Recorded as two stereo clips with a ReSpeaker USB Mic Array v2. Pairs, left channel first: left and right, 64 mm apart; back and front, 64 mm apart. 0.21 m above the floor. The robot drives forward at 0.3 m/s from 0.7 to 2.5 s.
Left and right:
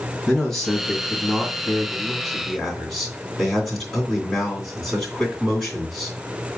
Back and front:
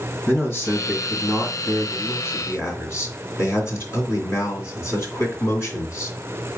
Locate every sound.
0.3 s a man speaking: 170° left, 2.0 m; by 6.2 s 175° left, 2.5 m